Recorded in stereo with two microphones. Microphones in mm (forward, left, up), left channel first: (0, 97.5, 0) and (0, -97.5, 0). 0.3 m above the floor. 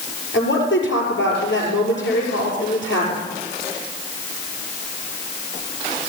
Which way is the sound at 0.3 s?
75° left (ahead or behind).